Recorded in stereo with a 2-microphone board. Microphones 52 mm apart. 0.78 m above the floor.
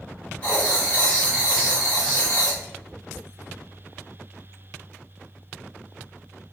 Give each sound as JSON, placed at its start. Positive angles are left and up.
{"t": 0.4, "sound": "writing", "side_deg": 25, "distance_m": 1.8}